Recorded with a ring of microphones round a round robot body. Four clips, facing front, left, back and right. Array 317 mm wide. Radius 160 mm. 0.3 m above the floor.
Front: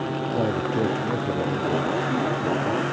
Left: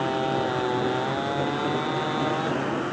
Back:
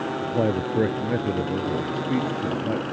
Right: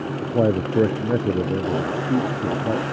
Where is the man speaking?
100° right.